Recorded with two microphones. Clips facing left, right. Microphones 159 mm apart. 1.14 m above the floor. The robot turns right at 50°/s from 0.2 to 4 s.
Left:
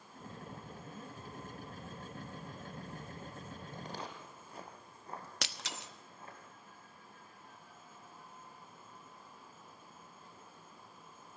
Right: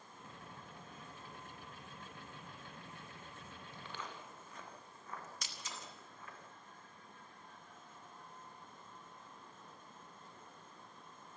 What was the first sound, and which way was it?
Footsteps, 50° left (ahead or behind).